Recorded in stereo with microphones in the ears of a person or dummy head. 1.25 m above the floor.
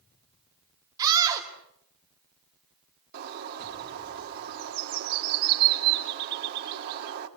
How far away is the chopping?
I don't hear chopping.